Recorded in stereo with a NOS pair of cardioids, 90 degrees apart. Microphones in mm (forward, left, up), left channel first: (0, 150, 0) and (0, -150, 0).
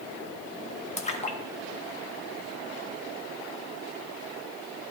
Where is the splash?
25° left, 1.3 m.